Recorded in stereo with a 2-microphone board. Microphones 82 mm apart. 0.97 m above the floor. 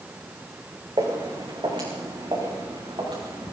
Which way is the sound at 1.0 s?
70° right (ahead or behind).